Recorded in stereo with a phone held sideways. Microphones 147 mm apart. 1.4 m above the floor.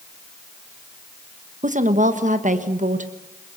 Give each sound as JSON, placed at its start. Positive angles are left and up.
{"t": 1.6, "sound": "a woman speaking", "side_deg": -60, "distance_m": 1.3}